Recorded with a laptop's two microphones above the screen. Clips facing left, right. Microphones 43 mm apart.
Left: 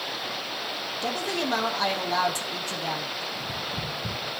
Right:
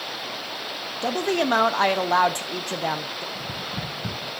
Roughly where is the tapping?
Right.